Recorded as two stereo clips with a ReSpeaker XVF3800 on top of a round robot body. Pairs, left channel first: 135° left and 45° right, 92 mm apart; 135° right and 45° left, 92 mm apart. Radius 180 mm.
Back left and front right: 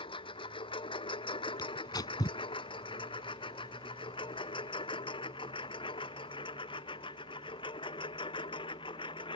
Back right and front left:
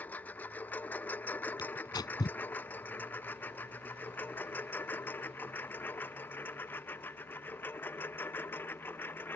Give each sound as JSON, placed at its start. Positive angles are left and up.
{"t": 0.0, "sound": "a lawn mower", "azimuth_deg": 155}
{"t": 1.6, "sound": "tearing paper", "azimuth_deg": 180}